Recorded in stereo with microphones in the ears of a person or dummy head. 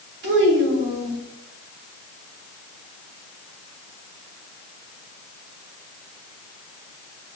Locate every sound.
0.2 s a child speaking: 60° right (ahead or behind), 1.6 m